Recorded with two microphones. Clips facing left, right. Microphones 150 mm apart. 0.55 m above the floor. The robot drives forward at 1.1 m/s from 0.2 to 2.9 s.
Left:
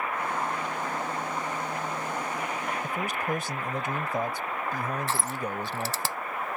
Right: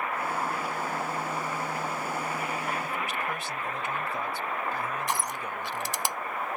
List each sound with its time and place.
2.8 s a man speaking: 45° left (ahead or behind)
5.1 s crushing: 15° right (ahead or behind)